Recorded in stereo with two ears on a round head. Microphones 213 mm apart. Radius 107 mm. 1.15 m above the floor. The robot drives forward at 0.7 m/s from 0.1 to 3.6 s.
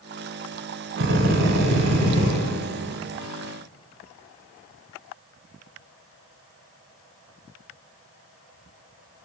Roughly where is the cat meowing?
I don't hear a cat meowing.